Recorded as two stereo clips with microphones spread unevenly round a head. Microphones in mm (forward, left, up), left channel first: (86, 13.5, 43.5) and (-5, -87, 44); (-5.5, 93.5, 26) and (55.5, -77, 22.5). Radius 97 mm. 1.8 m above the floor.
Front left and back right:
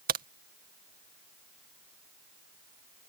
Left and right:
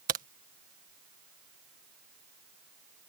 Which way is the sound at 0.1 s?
125° right.